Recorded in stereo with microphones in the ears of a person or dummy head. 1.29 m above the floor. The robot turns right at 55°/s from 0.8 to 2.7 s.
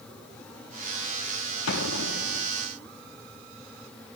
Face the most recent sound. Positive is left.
turn(degrees=155)